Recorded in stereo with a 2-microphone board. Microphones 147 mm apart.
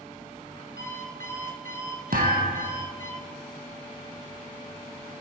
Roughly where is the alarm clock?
Right.